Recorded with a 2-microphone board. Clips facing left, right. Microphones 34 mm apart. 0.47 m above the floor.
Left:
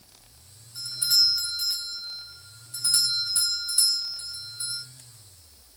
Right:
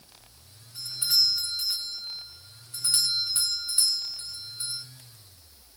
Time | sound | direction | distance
0.8 | a doorbell | 25° right (ahead or behind) | 6.5 m